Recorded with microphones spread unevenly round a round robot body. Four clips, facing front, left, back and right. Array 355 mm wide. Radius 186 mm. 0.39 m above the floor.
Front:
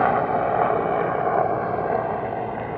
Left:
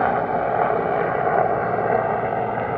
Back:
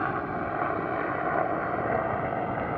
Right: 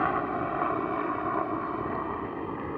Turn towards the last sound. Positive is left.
turn(degrees=90)